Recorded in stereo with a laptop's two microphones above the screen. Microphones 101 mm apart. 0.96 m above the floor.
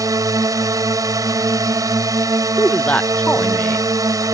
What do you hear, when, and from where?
0.0 s a drone: 35° right (ahead or behind)
2.6 s a man speaking: 15° left (ahead or behind)